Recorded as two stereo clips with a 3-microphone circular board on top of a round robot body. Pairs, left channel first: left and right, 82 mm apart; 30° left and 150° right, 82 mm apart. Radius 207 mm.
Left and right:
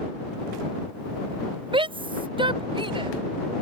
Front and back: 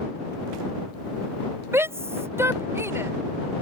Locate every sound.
1.7 s a shout: 90° right